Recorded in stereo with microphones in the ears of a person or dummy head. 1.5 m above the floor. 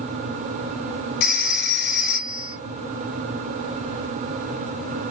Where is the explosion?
No explosion in this recording.